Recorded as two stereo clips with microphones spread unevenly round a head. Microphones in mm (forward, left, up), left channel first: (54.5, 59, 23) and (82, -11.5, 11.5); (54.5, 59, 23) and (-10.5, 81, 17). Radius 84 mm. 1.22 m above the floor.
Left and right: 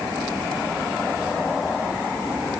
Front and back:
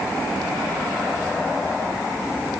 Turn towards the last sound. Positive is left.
No sound to turn to.